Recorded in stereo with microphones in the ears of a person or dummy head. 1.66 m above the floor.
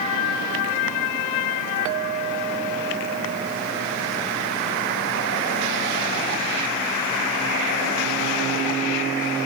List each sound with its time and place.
1.9 s a clink: 35° right (ahead or behind)